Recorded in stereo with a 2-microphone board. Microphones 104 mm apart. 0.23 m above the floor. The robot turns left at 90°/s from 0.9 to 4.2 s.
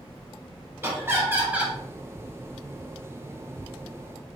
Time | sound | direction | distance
0.8 | laughter | 25° right (ahead or behind) | 1.0 m